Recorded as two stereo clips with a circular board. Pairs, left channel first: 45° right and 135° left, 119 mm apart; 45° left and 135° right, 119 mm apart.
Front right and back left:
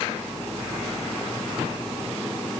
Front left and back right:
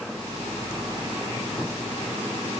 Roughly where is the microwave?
No microwave in this recording.